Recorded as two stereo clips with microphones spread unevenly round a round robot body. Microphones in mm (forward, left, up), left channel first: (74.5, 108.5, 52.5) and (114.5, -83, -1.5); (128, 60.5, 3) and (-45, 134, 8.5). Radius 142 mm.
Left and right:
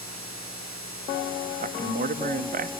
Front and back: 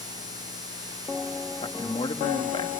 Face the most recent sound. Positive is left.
turn(degrees=-85)